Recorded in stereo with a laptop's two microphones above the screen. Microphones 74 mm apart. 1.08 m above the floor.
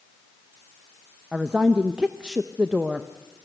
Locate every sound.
1.3 s a woman speaking: 15° right (ahead or behind), 0.7 m